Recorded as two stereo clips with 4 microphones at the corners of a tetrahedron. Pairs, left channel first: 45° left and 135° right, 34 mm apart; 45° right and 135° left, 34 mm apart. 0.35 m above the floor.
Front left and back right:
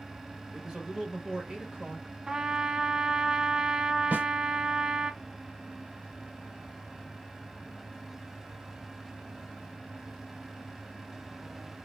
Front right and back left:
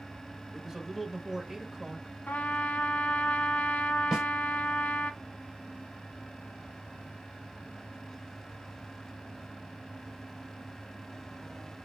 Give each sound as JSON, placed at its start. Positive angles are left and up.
{"t": 0.5, "sound": "a man speaking", "azimuth_deg": -170, "distance_m": 0.9}
{"t": 2.3, "sound": "a trumpet", "azimuth_deg": -70, "distance_m": 0.6}
{"t": 4.1, "sound": "a snare drum", "azimuth_deg": -140, "distance_m": 1.9}